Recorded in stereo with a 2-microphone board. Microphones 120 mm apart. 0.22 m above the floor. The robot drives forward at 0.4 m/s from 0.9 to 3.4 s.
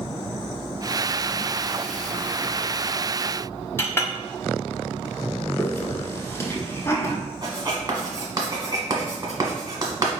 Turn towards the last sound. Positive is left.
turn(degrees=-30)  # may be behind; listen again after turning